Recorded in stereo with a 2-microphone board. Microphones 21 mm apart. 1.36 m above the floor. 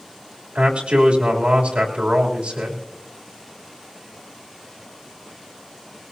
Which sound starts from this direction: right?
A man speaking, at 0.6 s.